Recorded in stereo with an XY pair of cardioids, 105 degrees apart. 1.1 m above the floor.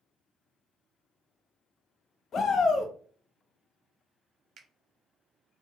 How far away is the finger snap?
About 0.6 m.